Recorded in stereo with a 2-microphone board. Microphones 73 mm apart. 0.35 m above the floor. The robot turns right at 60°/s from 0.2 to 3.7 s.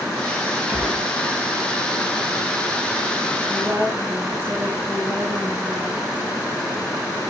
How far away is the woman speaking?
About 3.5 m.